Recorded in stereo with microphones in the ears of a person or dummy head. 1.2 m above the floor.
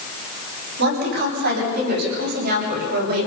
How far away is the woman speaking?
About 9.5 m.